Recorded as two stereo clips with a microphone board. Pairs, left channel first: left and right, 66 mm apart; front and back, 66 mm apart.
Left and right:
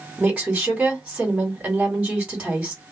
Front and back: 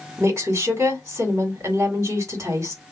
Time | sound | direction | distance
0.2 | a woman speaking | 155° right | 1.7 m